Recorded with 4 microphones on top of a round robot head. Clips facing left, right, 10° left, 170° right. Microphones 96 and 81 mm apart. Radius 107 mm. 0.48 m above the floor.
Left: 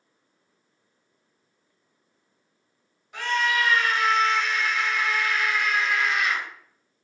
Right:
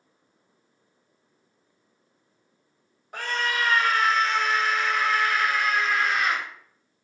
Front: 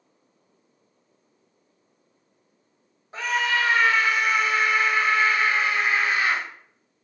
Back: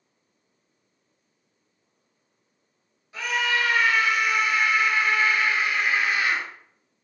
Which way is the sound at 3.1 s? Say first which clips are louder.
Left 3 dB, front 1 dB; 45° right.